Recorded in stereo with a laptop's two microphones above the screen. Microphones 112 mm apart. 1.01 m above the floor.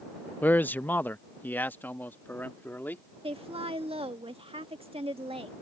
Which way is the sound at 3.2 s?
60° right (ahead or behind).